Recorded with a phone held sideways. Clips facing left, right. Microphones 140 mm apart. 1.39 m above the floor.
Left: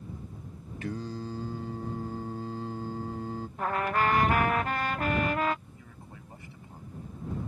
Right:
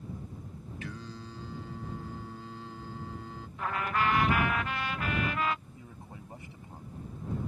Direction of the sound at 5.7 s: 20° right (ahead or behind).